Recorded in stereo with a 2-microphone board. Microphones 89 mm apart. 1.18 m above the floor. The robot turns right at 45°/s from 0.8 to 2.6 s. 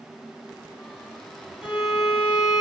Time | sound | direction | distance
1.6 | a violin | 10° right | 2.5 m